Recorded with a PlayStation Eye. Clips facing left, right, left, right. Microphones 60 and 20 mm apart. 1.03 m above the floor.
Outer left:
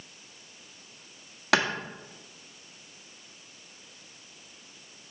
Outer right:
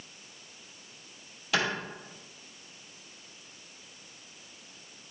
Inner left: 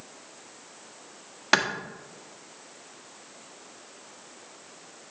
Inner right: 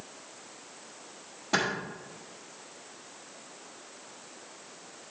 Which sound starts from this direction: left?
A clap, at 1.5 s.